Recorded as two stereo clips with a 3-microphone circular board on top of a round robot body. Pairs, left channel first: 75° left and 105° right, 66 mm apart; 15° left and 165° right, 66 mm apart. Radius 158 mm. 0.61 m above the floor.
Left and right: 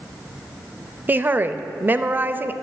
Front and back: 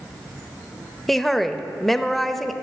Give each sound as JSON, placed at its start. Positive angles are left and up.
{"t": 1.1, "sound": "a woman speaking", "azimuth_deg": -70, "distance_m": 0.8}